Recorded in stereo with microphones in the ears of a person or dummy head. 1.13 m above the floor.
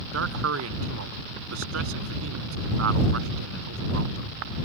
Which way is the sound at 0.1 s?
80° right.